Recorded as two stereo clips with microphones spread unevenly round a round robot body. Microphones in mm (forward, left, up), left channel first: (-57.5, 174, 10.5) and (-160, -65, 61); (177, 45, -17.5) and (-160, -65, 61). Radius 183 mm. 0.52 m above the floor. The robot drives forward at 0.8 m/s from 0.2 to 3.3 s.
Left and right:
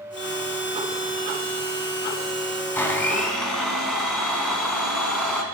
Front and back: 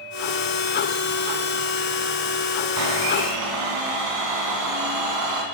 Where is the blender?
150° left, 1.5 m; by 5.4 s 155° left, 1.9 m.